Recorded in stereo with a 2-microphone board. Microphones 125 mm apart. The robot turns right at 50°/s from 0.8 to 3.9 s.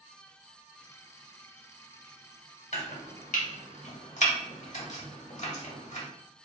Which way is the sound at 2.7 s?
55° left (ahead or behind).